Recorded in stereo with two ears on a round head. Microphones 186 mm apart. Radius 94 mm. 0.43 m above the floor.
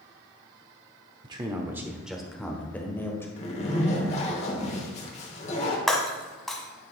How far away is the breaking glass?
About 1.0 m.